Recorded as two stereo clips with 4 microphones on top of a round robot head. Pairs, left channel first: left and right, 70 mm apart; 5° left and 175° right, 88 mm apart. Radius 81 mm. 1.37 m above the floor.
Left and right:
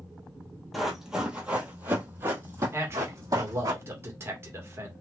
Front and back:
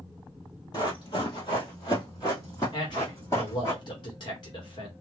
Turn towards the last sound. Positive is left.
turn(degrees=-40)